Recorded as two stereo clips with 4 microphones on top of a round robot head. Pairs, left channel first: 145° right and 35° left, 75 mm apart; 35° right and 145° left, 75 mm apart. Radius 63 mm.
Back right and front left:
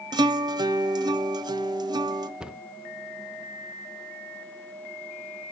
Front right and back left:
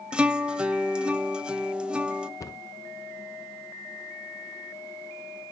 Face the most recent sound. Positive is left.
turn(degrees=-35)